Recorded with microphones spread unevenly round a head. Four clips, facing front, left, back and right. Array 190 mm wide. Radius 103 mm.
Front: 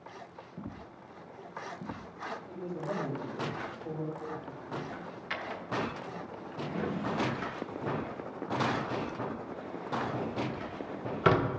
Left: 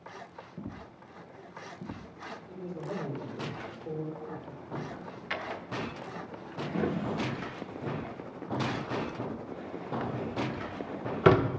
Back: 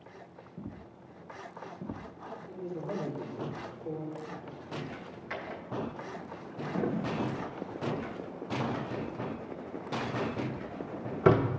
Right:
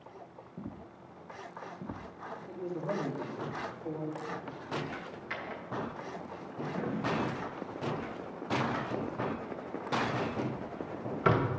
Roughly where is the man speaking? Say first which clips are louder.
Right 3 dB, back 1 dB; ahead right.